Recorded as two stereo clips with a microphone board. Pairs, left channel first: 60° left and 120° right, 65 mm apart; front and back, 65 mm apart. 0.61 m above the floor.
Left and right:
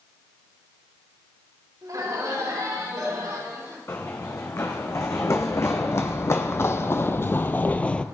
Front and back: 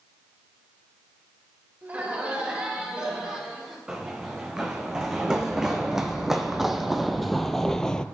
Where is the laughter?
115° right, 4 m; by 3.8 s 95° right, 5.5 m.